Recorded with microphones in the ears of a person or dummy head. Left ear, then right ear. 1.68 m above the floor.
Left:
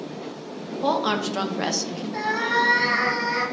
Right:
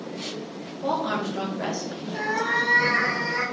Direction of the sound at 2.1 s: 55° left (ahead or behind).